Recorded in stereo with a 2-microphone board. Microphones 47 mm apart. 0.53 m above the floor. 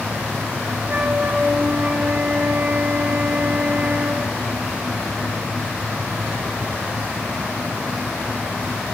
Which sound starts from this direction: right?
A flute, at 0.9 s.